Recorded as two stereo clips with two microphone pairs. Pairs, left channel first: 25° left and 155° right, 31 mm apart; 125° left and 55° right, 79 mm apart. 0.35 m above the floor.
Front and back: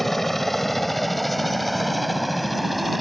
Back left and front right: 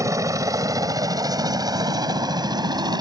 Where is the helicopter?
50° right; by 3.0 s 65° right.